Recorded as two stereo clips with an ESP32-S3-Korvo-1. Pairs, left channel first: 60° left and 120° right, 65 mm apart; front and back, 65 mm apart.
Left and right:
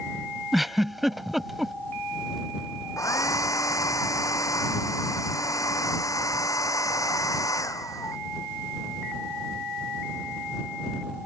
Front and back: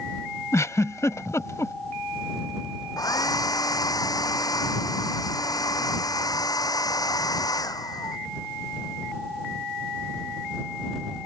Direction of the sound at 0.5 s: 35° right.